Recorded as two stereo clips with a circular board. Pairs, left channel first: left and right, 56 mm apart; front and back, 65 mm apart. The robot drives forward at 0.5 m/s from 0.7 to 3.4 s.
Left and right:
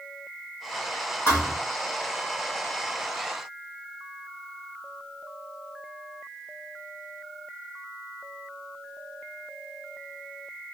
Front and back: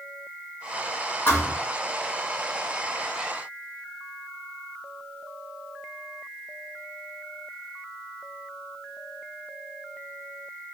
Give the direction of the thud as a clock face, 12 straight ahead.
10 o'clock.